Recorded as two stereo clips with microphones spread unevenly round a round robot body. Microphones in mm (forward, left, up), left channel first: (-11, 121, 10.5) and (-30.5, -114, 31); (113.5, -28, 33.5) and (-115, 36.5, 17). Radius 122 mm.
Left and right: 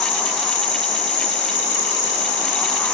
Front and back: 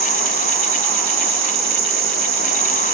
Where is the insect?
120° left, 4.5 m.